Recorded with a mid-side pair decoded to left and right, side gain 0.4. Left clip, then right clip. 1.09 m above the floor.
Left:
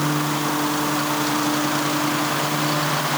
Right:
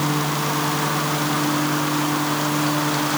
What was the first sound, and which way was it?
Only background noise.